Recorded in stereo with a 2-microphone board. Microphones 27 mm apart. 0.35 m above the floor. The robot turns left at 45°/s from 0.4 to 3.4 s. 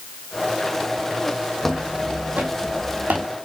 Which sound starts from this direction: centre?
Footsteps, at 1.6 s.